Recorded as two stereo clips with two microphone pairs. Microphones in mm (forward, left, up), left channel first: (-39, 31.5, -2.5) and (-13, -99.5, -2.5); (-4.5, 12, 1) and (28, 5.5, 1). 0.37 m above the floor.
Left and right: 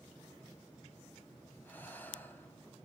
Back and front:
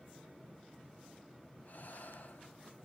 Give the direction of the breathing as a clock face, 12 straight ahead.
6 o'clock.